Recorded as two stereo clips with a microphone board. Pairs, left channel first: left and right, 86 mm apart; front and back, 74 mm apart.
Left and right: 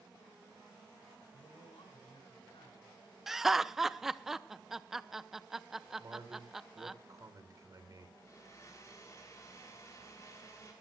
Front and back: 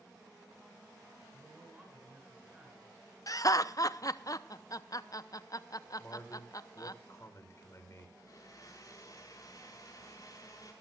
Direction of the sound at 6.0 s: 45° right.